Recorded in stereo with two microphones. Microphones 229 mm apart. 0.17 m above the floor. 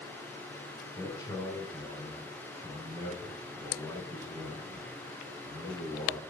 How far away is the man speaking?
About 1.2 m.